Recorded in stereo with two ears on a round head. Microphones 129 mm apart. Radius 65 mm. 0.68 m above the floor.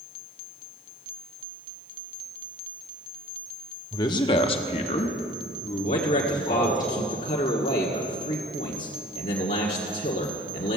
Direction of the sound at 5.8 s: 45° left (ahead or behind).